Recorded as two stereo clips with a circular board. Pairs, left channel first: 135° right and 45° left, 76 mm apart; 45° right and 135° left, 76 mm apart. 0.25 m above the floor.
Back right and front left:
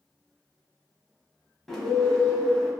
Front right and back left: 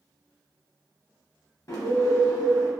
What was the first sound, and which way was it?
A bird, 50° right.